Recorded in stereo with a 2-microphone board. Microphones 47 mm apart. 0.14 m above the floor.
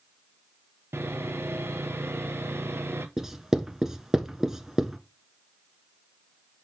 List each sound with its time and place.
0.9 s sawing: 65° right (ahead or behind), 0.9 m
3.2 s writing: 10° right (ahead or behind), 1.0 m